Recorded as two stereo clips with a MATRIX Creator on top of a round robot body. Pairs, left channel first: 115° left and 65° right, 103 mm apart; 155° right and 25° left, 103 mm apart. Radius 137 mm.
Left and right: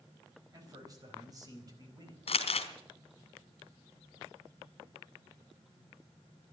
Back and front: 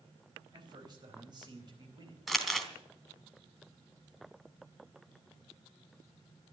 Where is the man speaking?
20° right, 4.5 m.